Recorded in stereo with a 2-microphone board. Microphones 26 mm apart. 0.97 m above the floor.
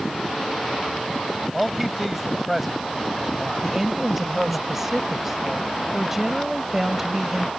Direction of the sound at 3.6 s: 15° right (ahead or behind).